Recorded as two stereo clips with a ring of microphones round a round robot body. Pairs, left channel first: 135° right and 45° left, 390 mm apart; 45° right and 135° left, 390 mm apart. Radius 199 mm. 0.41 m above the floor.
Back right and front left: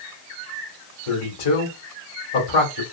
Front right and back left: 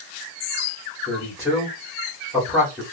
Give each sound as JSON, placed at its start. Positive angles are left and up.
{"t": 1.1, "sound": "a man speaking", "azimuth_deg": -140, "distance_m": 1.5}